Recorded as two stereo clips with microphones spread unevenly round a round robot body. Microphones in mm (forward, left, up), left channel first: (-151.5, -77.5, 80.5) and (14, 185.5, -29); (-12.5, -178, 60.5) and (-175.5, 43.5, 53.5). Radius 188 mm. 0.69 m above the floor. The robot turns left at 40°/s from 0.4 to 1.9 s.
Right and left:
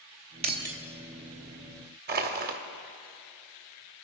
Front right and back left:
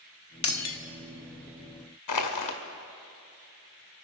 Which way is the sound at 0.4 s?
5° right.